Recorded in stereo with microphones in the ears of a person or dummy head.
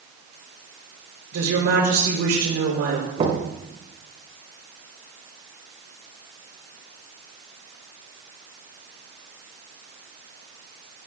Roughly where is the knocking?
Right.